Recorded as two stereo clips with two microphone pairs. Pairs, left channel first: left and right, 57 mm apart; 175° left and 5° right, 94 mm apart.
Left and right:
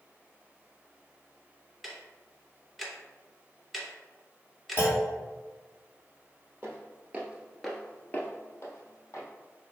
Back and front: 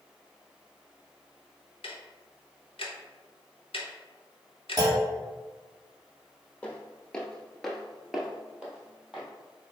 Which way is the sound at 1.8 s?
Straight behind.